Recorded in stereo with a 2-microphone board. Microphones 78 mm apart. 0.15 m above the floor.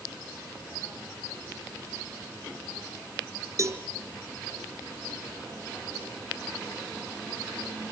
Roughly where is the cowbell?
Right.